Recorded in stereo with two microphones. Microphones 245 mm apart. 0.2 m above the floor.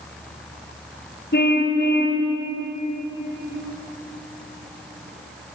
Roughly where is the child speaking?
I don't hear a child speaking.